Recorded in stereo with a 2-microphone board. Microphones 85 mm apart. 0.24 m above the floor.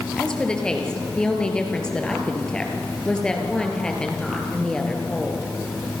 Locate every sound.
0.2 s a woman speaking: 10° left (ahead or behind), 4.5 m